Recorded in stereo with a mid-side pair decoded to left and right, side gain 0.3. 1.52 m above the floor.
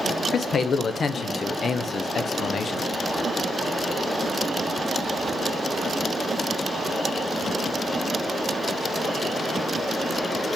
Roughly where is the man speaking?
Ahead left.